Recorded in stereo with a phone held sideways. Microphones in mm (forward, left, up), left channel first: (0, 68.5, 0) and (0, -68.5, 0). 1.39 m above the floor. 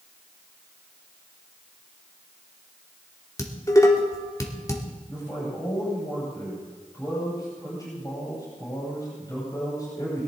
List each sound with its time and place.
3.4 s dishes clattering: 25° left (ahead or behind), 2 m
5.1 s a man speaking: 30° left (ahead or behind), 8 m